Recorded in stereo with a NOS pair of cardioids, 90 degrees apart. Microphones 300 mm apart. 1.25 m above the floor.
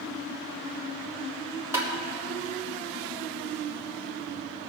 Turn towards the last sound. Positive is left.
turn(degrees=-10)